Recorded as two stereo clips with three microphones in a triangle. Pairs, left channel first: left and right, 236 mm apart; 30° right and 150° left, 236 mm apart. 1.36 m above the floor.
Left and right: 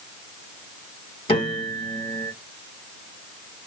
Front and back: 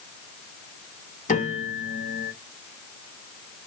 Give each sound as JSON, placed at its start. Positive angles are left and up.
{"t": 1.3, "sound": "a piano", "azimuth_deg": 25, "distance_m": 1.5}